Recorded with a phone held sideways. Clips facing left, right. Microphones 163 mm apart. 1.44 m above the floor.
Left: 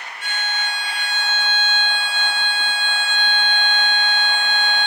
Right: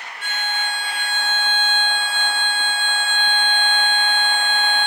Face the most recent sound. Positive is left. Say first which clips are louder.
# right 1 dB
turn(degrees=-55)  # may be behind; listen again after turning